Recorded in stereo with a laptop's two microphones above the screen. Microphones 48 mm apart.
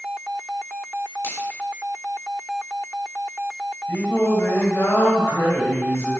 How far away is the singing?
About 3.5 m.